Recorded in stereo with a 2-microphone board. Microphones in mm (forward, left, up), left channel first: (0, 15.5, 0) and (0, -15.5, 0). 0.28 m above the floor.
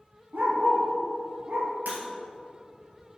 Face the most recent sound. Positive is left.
turn(degrees=-80)